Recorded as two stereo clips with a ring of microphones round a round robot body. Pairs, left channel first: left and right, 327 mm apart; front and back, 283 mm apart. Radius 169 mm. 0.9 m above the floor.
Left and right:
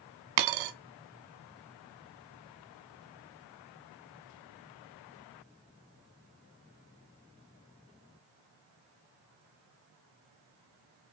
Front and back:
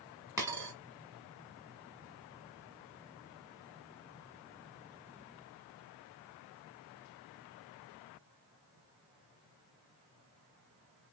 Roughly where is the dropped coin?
Right.